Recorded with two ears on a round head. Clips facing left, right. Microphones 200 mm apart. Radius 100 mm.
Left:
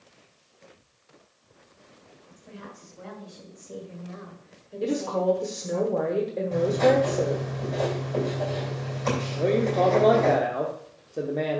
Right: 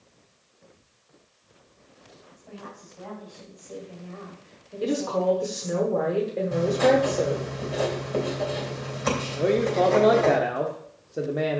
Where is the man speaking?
5° right (ahead or behind), 0.8 m.